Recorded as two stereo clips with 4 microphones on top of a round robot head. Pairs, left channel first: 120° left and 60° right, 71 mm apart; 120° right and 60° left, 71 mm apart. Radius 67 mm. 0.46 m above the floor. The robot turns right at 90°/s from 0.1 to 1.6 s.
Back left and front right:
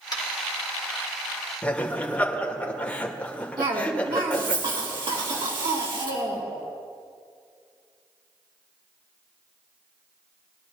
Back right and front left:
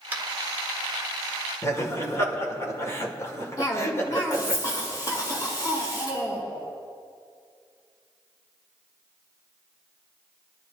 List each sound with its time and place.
0.1 s tapping: 120° left, 1.6 m; by 0.2 s 130° left, 1.6 m
1.6 s laughter: 170° right, 1.9 m
3.6 s a cough: 80° right, 3.5 m